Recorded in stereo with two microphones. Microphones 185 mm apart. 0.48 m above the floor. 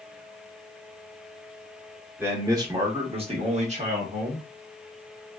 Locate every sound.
2.2 s a man speaking: 15° right (ahead or behind), 1.0 m; by 4.5 s 45° right (ahead or behind), 1.2 m